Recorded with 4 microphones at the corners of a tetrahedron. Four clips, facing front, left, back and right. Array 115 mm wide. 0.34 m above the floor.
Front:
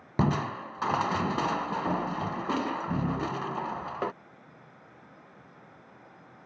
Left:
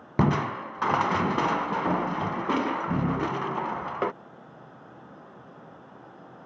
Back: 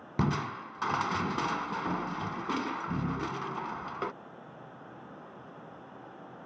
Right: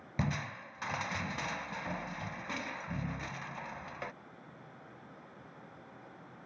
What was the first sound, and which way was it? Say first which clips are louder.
Crushing: left 13 dB, front 3 dB; 75° left.